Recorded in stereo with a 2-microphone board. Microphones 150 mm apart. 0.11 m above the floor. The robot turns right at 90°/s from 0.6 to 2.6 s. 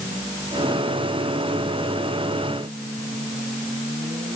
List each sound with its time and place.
Only background noise.